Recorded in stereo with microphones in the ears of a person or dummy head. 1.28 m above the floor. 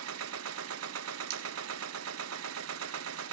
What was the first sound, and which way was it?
A machine running, 75° right (ahead or behind).